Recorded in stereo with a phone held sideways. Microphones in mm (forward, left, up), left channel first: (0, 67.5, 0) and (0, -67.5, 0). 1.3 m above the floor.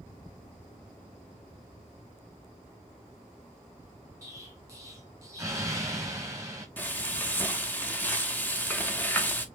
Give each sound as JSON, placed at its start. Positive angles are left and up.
{"t": 4.2, "sound": "an explosion", "side_deg": -20, "distance_m": 1.5}
{"t": 6.8, "sound": "frying", "side_deg": 10, "distance_m": 1.0}